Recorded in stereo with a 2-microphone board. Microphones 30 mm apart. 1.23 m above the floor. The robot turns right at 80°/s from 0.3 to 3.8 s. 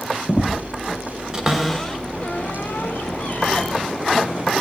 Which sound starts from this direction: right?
A cupboard door, at 1.3 s.